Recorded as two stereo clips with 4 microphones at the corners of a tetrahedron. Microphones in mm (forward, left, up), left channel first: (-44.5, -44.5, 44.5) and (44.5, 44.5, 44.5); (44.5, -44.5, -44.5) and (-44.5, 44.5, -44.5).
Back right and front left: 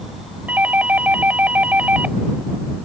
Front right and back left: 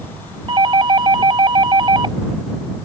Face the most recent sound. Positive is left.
turn(degrees=115)